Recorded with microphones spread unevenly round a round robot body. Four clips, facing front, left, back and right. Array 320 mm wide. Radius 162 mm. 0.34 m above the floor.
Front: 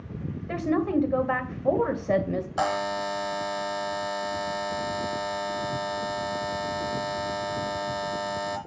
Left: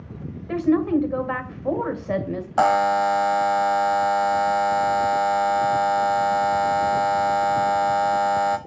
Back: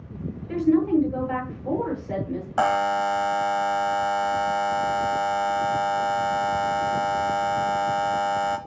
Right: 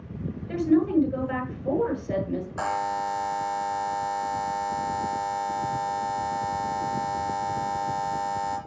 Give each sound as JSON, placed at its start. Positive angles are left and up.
{"t": 0.5, "sound": "a woman speaking", "azimuth_deg": 30, "distance_m": 2.0}
{"t": 2.6, "sound": "a buzzer", "azimuth_deg": 110, "distance_m": 1.0}